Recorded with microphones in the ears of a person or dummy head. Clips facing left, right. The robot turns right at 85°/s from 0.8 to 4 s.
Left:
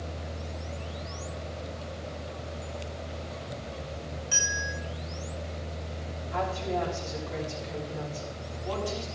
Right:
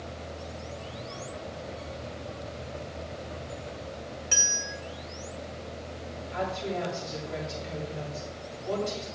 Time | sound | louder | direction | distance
4.3 | a bell | left 1 dB | 35° right (ahead or behind) | 1.7 m
6.3 | a woman speaking | left 1 dB | 80° left | 6.5 m